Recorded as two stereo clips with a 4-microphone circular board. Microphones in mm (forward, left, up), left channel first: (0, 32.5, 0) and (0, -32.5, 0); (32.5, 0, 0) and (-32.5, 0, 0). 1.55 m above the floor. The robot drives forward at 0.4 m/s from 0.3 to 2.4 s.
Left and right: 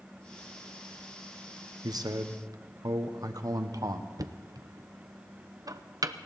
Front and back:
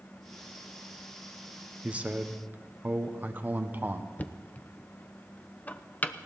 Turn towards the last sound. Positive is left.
turn(degrees=-65)